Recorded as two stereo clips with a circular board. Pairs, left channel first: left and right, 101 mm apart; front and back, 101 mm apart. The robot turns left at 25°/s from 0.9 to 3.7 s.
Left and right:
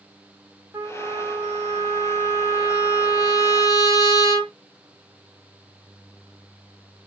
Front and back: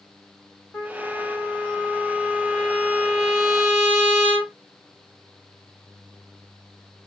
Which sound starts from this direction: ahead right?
A trumpet, at 0.7 s.